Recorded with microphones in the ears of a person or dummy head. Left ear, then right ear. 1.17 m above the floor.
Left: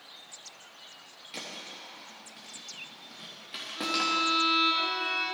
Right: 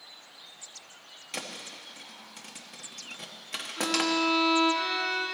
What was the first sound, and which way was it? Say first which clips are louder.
A thud: right 2 dB; 35° right (ahead or behind).